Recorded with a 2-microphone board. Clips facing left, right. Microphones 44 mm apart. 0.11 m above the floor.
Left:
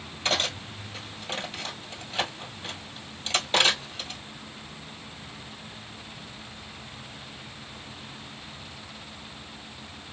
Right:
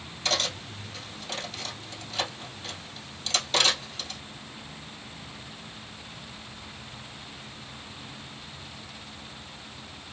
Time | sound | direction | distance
0.2 | cutlery clinking | 25° left (ahead or behind) | 1.4 m